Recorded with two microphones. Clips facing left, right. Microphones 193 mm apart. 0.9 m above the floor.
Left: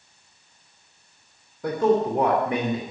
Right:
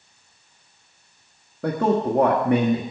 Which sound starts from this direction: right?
A man speaking, at 1.6 s.